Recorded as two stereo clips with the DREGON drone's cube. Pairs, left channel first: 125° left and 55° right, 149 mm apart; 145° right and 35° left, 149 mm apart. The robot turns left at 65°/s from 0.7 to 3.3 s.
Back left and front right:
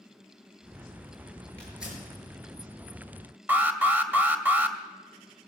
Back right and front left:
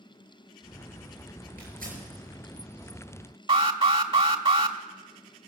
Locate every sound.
1.6 s tearing paper: 45° left, 6 m; by 2.0 s 15° left, 6 m
3.5 s an alarm: 15° left, 1.0 m